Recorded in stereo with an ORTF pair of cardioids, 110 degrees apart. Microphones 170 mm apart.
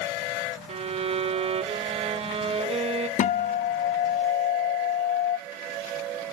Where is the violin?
35° right, 1.2 m.